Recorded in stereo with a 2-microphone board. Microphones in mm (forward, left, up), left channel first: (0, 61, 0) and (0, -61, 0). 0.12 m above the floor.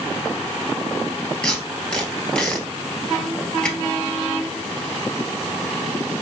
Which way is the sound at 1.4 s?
10° left (ahead or behind).